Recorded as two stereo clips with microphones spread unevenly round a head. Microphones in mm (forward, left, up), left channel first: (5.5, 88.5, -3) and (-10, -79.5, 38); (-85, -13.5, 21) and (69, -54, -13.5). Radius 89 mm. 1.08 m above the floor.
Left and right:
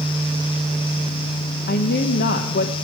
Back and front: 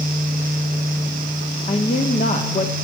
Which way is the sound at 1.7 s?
100° left.